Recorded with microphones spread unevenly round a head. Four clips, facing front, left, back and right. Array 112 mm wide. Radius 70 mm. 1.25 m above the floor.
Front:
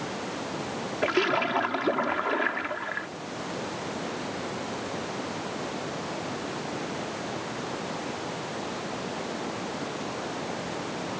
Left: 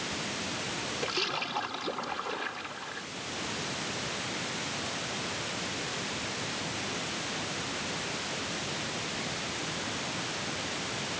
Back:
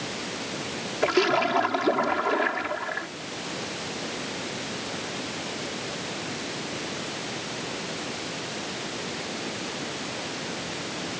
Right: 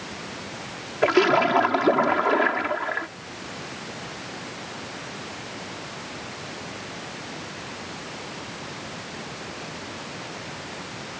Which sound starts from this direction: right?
A splash, at 1.0 s.